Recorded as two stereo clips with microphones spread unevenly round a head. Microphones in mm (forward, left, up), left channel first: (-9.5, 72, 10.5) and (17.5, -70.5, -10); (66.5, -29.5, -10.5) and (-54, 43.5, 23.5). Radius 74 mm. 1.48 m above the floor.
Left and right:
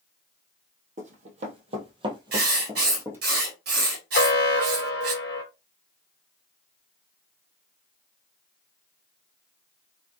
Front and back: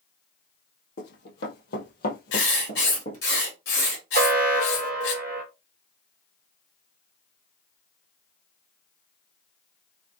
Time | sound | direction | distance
1.0 | running footsteps | 45° right | 2 m
2.3 | writing | 55° right | 2 m
4.1 | an alarm | 115° left | 1.5 m